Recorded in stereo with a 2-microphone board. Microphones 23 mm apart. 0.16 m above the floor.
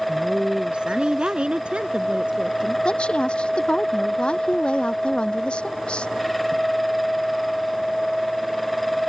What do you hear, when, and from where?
0.1 s a woman speaking: 40° right (ahead or behind)
2.9 s a woman speaking: 45° left (ahead or behind)